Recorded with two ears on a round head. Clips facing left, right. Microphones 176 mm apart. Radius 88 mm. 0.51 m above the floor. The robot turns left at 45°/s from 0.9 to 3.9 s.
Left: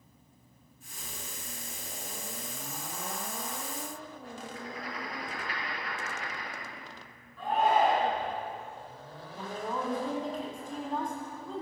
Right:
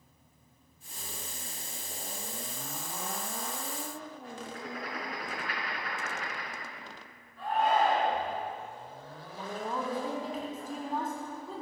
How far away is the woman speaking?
About 4.5 m.